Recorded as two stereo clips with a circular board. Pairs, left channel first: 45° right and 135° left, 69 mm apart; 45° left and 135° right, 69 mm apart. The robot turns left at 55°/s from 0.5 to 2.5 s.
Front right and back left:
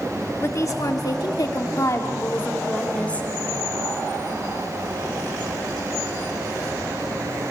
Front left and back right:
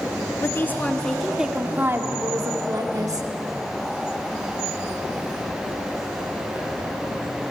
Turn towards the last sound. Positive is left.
turn(degrees=-115)